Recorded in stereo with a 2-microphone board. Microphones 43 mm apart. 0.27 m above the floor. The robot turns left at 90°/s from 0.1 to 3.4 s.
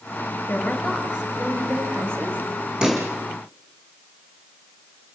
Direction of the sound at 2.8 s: 25° right (ahead or behind).